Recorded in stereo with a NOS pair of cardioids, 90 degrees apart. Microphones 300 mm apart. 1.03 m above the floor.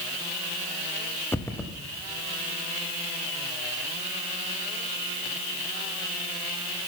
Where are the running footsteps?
10° left, 3 m.